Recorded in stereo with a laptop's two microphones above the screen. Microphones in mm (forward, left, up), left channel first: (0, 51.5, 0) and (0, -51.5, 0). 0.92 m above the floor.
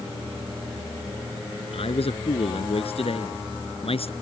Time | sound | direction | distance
1.7 | a man speaking | 70° left (ahead or behind) | ?